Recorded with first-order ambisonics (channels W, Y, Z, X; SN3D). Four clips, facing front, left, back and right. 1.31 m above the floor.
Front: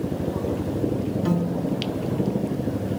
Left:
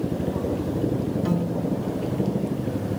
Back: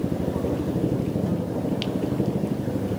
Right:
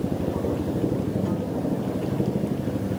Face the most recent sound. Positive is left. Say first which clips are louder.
# left 1 dB, front 2 dB
turn(degrees=30)